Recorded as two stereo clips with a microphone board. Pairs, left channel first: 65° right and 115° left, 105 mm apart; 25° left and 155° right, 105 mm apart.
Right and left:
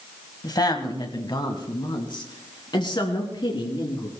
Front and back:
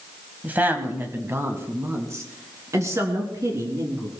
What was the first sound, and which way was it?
A woman speaking, 90° right.